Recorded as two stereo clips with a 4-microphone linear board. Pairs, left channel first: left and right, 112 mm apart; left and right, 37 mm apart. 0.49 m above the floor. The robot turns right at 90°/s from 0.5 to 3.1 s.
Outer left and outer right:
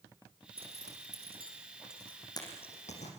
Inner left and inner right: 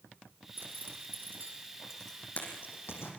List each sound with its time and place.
0.6 s a zipper: 55° right (ahead or behind), 6 m; by 3.1 s 80° left, 6 m